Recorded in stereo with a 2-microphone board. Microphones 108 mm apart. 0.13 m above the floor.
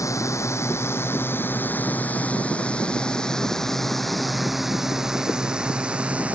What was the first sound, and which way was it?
A drone, 30° left (ahead or behind).